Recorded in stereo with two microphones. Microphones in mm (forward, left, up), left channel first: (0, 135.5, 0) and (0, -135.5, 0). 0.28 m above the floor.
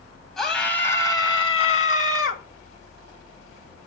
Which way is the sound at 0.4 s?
Centre (ahead or behind).